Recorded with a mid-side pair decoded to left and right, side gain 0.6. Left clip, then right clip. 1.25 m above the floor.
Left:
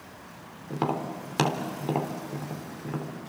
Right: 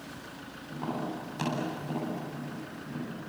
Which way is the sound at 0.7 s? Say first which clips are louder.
Left 6 dB; 65° left.